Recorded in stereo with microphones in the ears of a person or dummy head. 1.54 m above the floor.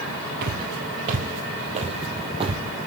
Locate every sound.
0.4 s footsteps: 50° right (ahead or behind), 3 m; by 2.6 s 25° right (ahead or behind), 3.5 m